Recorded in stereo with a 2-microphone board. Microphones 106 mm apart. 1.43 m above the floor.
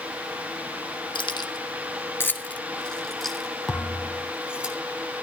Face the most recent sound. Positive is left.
turn(degrees=0)  # may be behind; listen again after turning